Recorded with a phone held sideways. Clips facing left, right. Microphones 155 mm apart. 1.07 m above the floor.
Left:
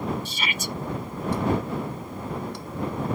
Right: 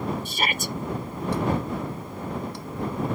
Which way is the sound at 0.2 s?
50° right (ahead or behind).